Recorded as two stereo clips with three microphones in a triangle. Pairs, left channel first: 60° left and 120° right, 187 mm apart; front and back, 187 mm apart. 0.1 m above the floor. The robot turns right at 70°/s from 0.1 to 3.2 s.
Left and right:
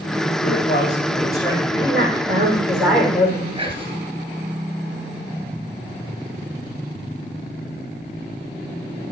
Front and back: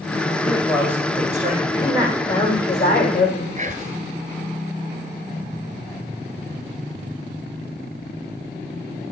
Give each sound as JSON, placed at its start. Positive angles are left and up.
{"t": 0.4, "sound": "a man speaking", "azimuth_deg": 65, "distance_m": 4.5}
{"t": 1.8, "sound": "a woman speaking", "azimuth_deg": -120, "distance_m": 7.0}
{"t": 3.6, "sound": "whispering", "azimuth_deg": -165, "distance_m": 1.5}